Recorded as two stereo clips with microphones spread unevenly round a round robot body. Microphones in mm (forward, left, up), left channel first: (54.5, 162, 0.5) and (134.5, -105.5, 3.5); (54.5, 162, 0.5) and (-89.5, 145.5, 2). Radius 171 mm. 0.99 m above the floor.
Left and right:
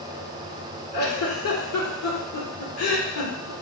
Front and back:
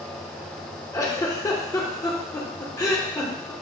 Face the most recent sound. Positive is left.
turn(degrees=75)